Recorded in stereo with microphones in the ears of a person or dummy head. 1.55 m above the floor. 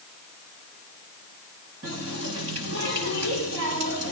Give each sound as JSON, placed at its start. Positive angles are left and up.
{"t": 1.8, "sound": "a running tap", "side_deg": -80, "distance_m": 8.5}